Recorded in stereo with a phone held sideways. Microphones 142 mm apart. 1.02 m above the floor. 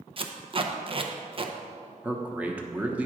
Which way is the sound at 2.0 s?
10° right (ahead or behind).